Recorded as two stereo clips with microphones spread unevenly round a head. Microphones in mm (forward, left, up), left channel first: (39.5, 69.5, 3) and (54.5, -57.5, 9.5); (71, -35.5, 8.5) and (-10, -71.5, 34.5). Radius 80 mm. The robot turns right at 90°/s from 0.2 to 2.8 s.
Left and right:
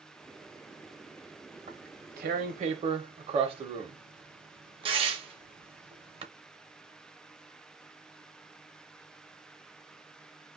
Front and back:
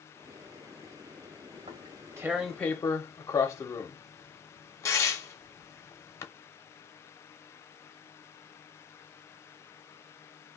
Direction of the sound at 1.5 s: 150° right.